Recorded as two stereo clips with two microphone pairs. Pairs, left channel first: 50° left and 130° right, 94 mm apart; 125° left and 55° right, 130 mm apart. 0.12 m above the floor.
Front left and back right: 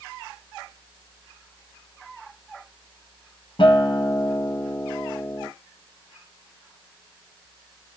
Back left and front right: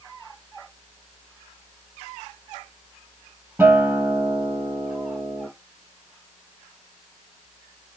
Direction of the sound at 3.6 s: 20° left.